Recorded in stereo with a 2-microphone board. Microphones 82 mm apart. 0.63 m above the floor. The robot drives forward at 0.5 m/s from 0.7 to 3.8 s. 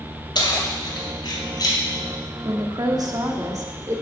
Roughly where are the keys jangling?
Left.